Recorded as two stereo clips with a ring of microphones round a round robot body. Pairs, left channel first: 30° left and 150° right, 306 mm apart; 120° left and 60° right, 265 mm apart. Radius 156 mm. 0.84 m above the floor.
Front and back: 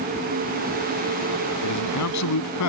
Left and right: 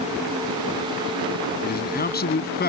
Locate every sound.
1.6 s a man speaking: 65° left